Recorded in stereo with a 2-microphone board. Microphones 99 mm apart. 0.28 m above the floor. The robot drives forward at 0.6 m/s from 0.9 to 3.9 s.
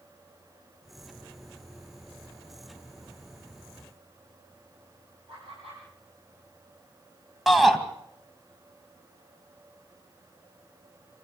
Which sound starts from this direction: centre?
A shout, at 7.5 s.